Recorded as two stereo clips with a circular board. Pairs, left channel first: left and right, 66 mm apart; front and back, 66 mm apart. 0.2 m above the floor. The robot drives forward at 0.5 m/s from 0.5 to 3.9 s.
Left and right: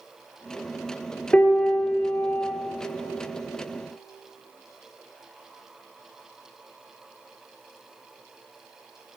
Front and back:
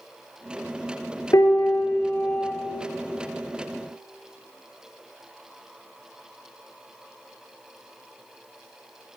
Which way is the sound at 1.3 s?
20° left.